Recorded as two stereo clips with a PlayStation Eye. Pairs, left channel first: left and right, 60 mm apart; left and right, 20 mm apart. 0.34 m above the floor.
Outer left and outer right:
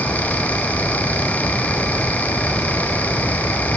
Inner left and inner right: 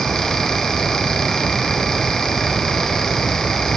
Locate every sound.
Only background noise.